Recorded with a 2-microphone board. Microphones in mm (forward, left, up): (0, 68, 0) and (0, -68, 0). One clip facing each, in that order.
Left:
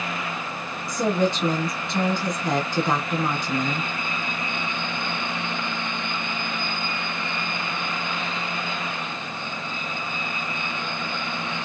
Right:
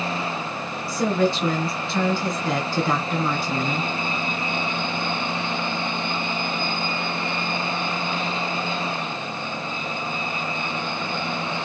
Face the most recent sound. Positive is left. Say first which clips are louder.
# right 1 dB
turn(degrees=20)  # may be behind; listen again after turning